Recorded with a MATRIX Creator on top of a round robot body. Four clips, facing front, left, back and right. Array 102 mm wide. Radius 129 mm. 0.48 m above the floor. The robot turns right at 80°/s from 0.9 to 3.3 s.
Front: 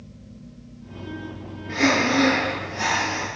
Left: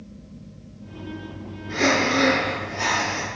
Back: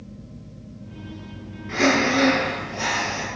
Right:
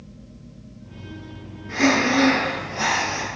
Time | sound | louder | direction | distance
1.7 | breathing | right 2 dB, back 1 dB | 165° right | 5 m